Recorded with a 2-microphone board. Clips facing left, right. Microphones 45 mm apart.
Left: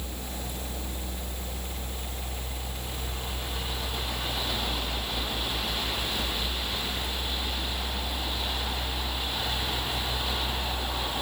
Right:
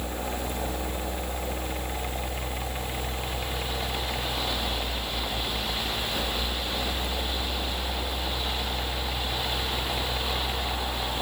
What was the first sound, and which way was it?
Only background noise.